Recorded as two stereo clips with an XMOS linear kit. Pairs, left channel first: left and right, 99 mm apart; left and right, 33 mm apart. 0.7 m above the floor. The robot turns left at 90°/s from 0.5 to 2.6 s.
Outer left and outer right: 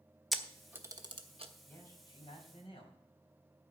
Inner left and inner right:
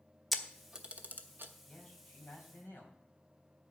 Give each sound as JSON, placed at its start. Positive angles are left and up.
{"t": 0.3, "sound": "a camera shutter", "side_deg": 0, "distance_m": 1.0}
{"t": 1.7, "sound": "a man speaking", "azimuth_deg": 165, "distance_m": 4.0}